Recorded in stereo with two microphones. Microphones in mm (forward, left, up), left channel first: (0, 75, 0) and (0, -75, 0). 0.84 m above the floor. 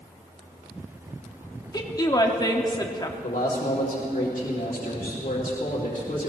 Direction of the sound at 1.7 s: 25° left (ahead or behind).